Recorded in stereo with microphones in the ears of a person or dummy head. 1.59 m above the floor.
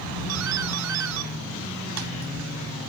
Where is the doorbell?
75° right (ahead or behind).